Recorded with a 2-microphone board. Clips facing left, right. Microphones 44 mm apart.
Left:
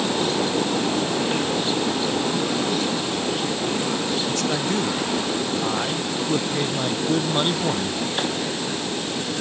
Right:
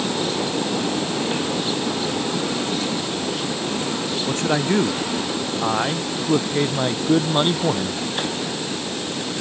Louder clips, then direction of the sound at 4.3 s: Right 3 dB; 30° right (ahead or behind).